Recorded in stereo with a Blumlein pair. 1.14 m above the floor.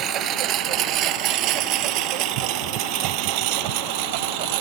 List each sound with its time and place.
0.0 s a lawn mower: 30° right; by 4.6 s 45° right